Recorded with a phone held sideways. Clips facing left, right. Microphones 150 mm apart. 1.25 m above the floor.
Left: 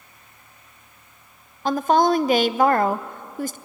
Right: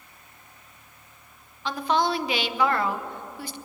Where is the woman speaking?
40° left (ahead or behind), 0.6 m.